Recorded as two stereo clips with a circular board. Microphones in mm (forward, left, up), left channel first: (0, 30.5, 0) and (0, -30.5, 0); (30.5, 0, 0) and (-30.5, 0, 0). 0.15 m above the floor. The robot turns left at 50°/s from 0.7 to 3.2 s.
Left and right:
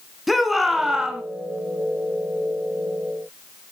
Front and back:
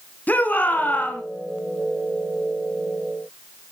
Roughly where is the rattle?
No rattle in this recording.